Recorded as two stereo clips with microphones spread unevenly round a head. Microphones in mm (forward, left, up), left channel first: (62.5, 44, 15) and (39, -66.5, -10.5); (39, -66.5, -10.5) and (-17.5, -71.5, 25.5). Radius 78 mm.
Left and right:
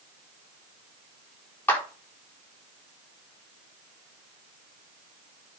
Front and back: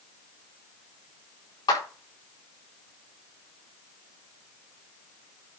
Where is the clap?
5° left, 4 m.